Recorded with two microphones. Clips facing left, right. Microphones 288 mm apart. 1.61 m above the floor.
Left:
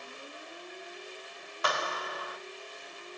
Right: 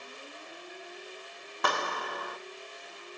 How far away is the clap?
About 1.5 m.